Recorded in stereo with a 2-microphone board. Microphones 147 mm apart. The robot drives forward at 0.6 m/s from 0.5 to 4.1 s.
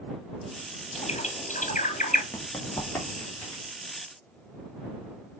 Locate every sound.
0.9 s a bird: 45° left (ahead or behind), 1.6 m; by 2.2 s 75° left (ahead or behind), 1.2 m
2.3 s running footsteps: 15° left (ahead or behind), 3 m; by 3.6 s 20° left (ahead or behind), 5.5 m